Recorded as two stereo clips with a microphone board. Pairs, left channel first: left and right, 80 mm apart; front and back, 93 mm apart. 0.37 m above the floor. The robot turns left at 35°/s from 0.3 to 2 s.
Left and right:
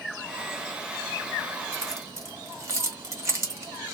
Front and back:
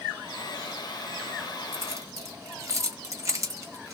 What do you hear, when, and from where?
1.7 s keys jangling: 125° right, 1.4 m; by 3.9 s 135° right, 1.4 m